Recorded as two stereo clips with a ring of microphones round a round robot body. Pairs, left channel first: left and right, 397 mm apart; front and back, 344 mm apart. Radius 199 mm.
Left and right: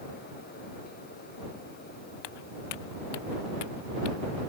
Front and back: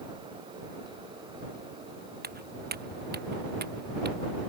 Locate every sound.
2.2 s footsteps: 115° left; by 4.2 s 120° left